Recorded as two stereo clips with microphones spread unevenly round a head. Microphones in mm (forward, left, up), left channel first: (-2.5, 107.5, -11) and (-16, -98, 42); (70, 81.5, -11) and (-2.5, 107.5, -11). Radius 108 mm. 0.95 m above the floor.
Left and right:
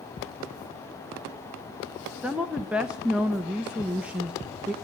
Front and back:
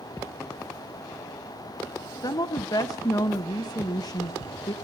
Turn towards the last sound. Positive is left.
turn(degrees=0)